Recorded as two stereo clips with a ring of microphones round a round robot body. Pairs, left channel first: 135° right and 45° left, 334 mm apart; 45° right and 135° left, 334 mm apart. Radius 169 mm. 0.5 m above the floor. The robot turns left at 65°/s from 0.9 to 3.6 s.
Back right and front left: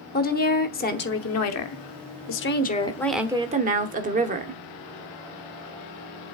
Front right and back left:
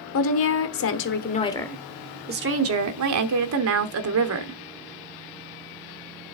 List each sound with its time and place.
0.1 s a woman speaking: 80° right, 1.1 m; by 4.6 s 105° left, 1.1 m